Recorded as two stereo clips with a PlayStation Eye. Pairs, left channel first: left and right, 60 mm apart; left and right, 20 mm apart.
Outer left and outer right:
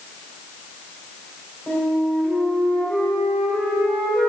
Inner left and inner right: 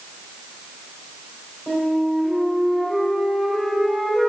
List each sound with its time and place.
1.7 s a flute: 15° left (ahead or behind), 2.5 m